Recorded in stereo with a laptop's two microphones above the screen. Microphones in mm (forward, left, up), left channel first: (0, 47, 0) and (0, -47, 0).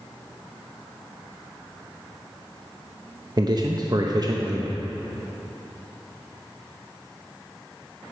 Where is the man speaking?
45° right (ahead or behind), 0.6 m.